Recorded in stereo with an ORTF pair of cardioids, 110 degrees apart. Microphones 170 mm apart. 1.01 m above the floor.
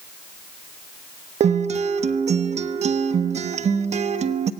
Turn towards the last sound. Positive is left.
turn(degrees=-40)